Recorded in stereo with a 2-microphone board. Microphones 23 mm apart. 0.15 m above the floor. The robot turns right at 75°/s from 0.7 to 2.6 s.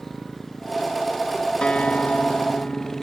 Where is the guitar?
50° left; by 3.0 s 120° left.